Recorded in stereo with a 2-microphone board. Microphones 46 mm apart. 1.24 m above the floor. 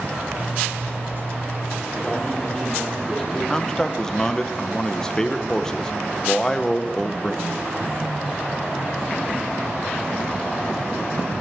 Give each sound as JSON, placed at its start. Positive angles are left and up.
{"t": 0.4, "sound": "a zipper", "side_deg": -50, "distance_m": 0.6}
{"t": 1.9, "sound": "a man speaking", "side_deg": 10, "distance_m": 3.5}
{"t": 3.5, "sound": "a man speaking", "side_deg": 15, "distance_m": 0.7}